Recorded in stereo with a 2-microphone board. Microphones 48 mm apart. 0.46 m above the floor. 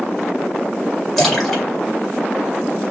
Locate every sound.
1.2 s a splash: 10° left (ahead or behind), 2 m